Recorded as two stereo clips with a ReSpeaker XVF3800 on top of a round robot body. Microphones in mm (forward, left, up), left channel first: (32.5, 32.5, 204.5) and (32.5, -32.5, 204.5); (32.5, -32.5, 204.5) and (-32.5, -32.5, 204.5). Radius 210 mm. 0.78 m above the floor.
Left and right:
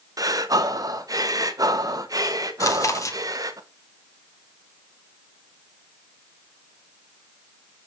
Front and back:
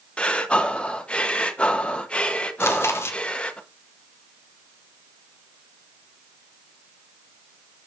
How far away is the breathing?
About 1.8 m.